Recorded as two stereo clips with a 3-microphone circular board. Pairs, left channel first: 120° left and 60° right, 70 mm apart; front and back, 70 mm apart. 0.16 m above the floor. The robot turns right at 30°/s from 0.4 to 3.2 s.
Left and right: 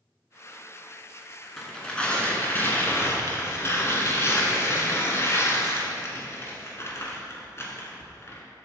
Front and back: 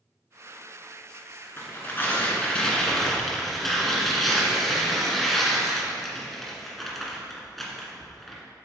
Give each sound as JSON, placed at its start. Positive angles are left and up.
{"t": 1.6, "sound": "tearing paper", "azimuth_deg": 40, "distance_m": 1.5}